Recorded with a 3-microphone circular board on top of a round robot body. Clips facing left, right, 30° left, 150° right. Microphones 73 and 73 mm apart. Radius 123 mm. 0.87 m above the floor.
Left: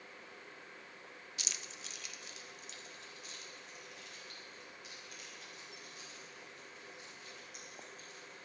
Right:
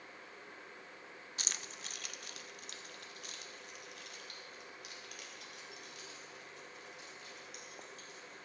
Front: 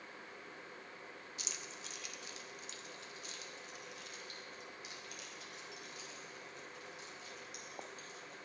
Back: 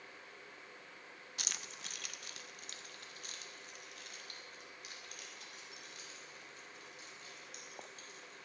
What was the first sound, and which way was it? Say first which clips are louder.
Keys jangling: right 3 dB, back 4 dB; 135° right.